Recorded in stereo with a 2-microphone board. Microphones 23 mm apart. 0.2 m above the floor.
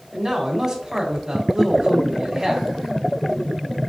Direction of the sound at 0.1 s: 20° right (ahead or behind).